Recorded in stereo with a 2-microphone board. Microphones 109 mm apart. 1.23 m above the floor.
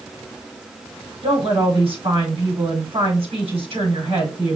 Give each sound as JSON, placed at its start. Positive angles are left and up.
{"t": 1.2, "sound": "a woman speaking", "side_deg": -60, "distance_m": 4.5}